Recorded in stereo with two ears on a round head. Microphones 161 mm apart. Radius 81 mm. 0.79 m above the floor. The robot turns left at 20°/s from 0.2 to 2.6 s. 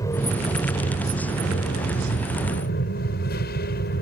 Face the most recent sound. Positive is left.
turn(degrees=110)